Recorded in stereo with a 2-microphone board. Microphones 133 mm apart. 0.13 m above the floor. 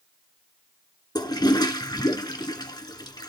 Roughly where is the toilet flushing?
Left.